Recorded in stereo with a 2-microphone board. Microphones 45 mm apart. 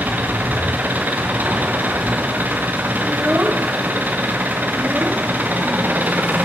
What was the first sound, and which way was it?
An engine running, 45° right (ahead or behind).